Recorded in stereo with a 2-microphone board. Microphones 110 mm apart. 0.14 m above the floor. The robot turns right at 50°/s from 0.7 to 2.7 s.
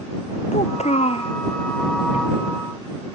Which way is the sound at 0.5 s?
95° left.